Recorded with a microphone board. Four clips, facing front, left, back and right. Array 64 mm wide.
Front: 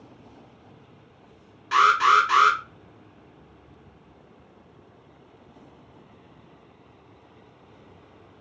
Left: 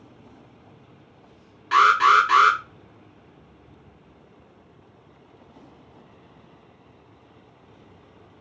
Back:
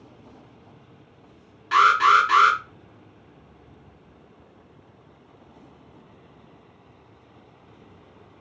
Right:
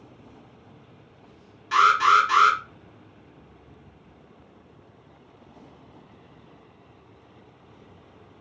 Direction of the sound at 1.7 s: 110° left.